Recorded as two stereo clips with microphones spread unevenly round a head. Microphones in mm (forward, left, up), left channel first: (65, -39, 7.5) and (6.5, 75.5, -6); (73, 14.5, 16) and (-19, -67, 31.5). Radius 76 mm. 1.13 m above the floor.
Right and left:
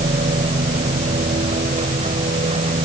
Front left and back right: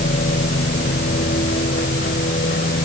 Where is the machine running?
75° left.